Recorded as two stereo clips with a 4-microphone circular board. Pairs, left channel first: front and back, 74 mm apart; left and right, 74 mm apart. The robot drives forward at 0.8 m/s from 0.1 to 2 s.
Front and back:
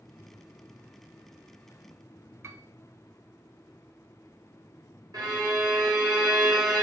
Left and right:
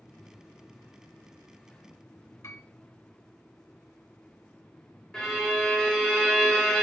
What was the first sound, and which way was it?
A piano, 135° left.